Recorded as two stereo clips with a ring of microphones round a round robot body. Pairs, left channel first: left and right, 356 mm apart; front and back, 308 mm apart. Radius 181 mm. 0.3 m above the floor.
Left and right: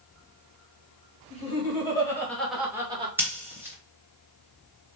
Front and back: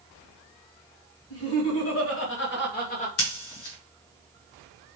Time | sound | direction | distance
1.3 | laughter | 25° left | 2.5 m
3.2 | scissors | 10° right | 1.6 m